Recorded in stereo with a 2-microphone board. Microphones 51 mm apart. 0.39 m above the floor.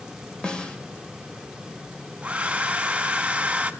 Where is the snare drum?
15° left (ahead or behind), 1.7 m.